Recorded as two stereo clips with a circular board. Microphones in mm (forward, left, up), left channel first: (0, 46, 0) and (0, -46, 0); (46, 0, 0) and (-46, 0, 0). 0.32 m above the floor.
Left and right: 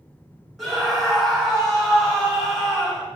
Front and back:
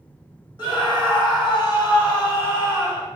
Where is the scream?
5° right, 1.7 m.